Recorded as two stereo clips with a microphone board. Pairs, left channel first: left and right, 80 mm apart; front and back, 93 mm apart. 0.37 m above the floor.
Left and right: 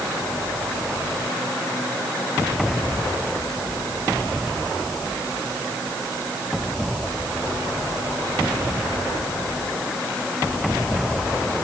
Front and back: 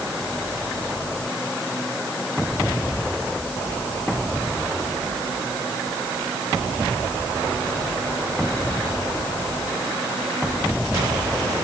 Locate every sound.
Only background noise.